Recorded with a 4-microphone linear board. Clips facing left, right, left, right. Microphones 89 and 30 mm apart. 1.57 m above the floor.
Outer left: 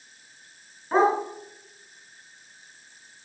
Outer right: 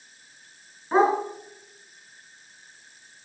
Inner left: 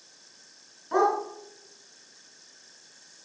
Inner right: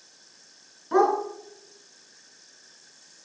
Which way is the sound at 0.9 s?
5° left (ahead or behind).